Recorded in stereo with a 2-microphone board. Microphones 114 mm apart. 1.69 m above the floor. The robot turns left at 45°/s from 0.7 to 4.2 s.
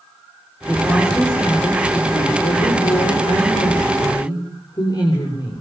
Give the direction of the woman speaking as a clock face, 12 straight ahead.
5 o'clock.